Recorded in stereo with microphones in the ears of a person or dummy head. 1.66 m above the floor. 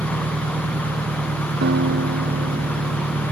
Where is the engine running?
35° right (ahead or behind).